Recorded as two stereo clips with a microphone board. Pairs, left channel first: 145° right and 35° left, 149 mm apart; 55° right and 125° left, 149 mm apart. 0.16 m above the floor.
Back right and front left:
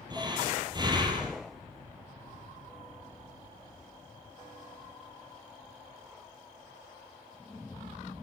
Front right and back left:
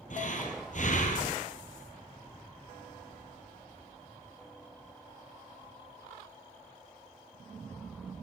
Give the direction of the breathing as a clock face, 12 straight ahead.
1 o'clock.